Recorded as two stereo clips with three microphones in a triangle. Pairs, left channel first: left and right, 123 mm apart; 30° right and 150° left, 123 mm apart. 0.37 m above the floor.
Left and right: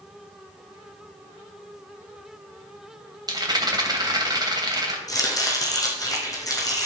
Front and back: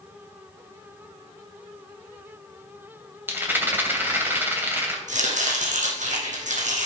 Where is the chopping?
150° left, 2.5 m.